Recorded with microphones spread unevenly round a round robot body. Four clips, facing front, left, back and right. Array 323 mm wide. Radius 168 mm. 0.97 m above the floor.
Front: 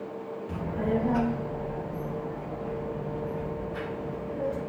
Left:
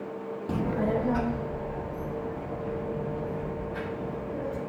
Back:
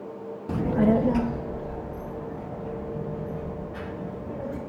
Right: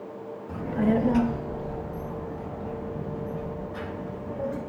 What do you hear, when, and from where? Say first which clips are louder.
0.5 s a child speaking: right 3 dB, back 8 dB; 130° left, 0.5 m; by 4.6 s 115° right, 6 m